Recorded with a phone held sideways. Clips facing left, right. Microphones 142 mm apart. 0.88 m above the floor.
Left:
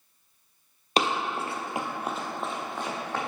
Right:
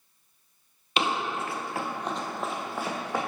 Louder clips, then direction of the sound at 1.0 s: Left 1 dB; 40° left (ahead or behind).